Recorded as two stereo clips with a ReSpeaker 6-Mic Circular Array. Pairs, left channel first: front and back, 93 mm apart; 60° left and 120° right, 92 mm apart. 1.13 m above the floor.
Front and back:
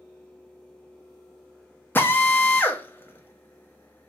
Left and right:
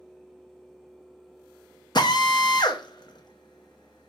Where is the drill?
60° left, 0.7 m.